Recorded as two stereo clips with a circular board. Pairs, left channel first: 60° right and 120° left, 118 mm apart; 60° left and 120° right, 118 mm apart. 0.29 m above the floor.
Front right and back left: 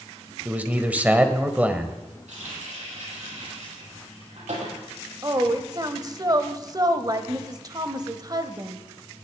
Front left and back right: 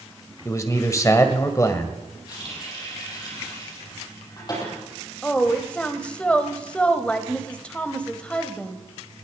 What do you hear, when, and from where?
0.5 s a man speaking: 60° left, 1.6 m
2.3 s a running tap: 115° left, 6.5 m
5.2 s a woman speaking: 135° left, 1.4 m